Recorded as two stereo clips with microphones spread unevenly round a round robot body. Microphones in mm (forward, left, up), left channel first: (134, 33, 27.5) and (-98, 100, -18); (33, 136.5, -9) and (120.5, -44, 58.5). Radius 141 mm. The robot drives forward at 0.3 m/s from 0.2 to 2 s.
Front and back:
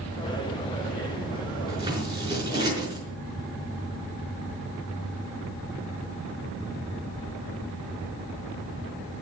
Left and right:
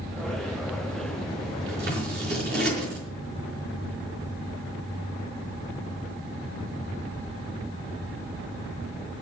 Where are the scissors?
115° right, 5 m; by 3.0 s 120° right, 5 m.